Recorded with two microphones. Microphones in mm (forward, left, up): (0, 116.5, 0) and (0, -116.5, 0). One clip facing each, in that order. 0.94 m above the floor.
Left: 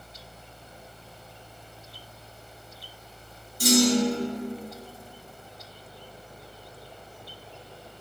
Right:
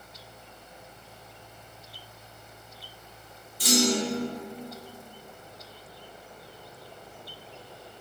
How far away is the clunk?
About 0.6 m.